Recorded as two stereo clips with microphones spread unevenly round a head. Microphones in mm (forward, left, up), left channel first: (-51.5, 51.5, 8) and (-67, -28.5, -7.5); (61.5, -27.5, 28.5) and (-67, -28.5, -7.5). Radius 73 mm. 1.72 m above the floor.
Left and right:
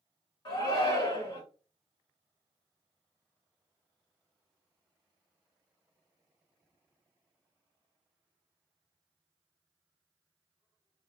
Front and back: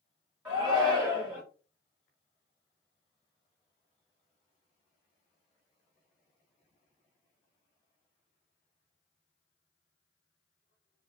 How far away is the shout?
About 1.8 m.